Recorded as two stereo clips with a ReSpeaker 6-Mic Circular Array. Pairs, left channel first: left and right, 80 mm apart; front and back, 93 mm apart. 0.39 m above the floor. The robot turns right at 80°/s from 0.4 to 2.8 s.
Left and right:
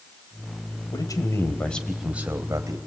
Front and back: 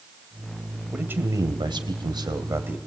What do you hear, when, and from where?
0.9 s a man speaking: 100° left, 2.5 m; by 2.8 s 110° right, 2.5 m